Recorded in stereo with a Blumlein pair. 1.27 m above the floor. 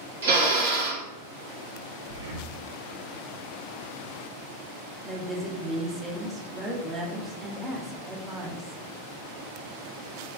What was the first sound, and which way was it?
A drill, 65° right.